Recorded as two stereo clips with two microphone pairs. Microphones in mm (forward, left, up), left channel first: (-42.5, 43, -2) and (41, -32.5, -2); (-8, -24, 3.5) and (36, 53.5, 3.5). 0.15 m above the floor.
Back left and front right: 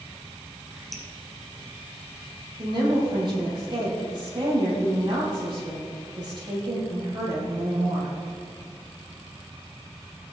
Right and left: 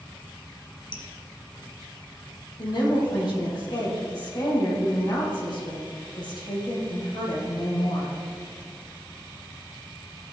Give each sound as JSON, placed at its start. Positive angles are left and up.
{"t": 0.9, "sound": "dripping", "azimuth_deg": -135, "distance_m": 1.8}
{"t": 2.6, "sound": "a woman speaking", "azimuth_deg": -85, "distance_m": 4.0}